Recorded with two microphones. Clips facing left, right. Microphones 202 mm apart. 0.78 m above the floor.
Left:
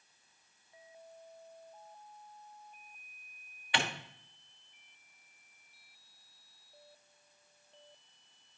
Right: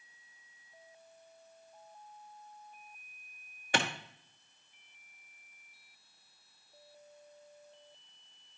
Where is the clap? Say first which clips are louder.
Right 3 dB; 45° right (ahead or behind), 1.2 m.